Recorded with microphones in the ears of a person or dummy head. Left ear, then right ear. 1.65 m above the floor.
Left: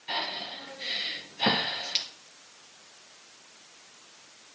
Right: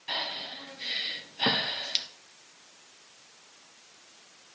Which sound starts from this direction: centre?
Breathing, at 0.1 s.